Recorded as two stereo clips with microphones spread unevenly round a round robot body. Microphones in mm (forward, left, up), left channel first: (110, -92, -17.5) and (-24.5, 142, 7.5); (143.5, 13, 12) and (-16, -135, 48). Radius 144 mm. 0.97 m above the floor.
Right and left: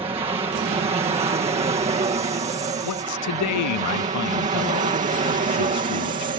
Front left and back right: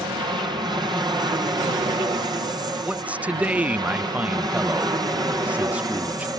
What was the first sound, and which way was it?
An aircraft, 165° left.